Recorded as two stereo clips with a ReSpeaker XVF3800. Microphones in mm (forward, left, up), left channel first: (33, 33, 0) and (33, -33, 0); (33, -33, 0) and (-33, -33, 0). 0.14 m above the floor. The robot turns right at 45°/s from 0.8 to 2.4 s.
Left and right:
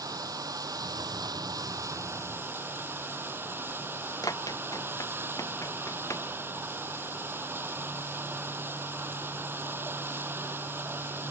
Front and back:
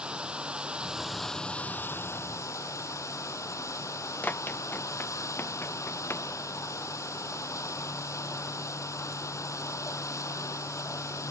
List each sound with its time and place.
0.0 s running water: 105° right; by 11.3 s 35° right
4.2 s running footsteps: 65° left; by 6.3 s 50° left